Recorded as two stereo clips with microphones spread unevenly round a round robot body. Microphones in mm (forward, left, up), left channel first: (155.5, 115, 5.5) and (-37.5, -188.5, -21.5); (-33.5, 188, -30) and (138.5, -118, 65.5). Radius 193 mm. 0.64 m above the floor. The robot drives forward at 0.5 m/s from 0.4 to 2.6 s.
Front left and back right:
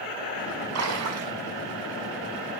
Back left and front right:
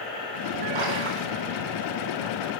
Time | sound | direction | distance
0.8 | a splash | 75° right | 5.5 m